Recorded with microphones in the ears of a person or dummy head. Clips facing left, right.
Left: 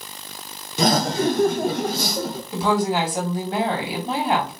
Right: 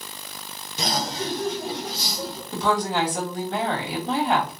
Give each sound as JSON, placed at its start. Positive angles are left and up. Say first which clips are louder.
{"t": 0.8, "sound": "laughter", "louder": "left 9 dB", "side_deg": 50, "distance_m": 0.5}
{"t": 2.5, "sound": "a woman speaking", "louder": "left 3 dB", "side_deg": 10, "distance_m": 1.9}